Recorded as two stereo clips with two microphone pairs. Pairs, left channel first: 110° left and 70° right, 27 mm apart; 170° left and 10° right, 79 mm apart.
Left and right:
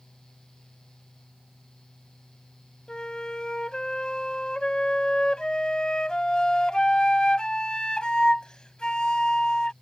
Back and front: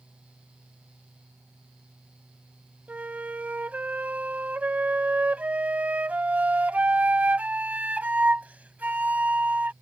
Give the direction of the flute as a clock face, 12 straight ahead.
10 o'clock.